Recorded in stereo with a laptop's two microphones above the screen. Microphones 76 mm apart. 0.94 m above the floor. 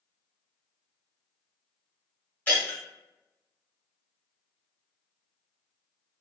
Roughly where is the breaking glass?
Left.